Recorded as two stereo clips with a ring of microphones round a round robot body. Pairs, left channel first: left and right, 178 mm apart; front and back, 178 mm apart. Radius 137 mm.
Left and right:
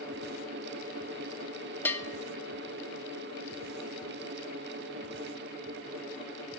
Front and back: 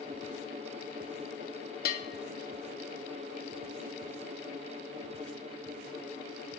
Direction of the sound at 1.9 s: 10° left.